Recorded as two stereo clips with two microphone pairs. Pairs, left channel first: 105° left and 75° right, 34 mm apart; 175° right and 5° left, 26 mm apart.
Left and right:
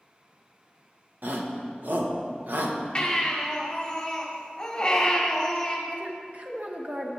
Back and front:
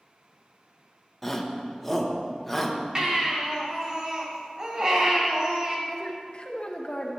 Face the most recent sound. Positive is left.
turn(degrees=-120)